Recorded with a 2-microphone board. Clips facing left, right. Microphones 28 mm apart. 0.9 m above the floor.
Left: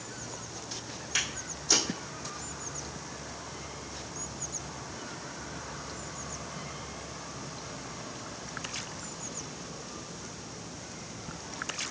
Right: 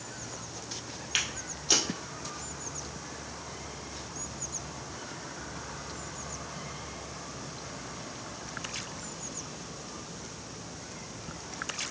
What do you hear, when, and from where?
1.1 s footsteps: 40° right (ahead or behind), 1.6 m